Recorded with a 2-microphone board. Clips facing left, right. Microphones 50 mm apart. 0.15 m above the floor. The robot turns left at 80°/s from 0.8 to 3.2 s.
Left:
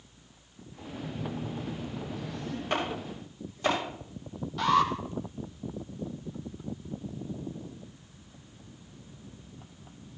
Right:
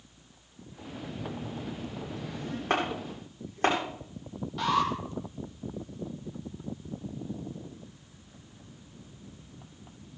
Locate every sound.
1.0 s a phone buzzing: 90° left, 5.5 m; by 2.6 s 40° right, 5.5 m
2.7 s chopping: 75° right (ahead or behind), 9 m; by 3.8 s 60° right (ahead or behind), 9 m
4.6 s an alarm: 5° right (ahead or behind), 4 m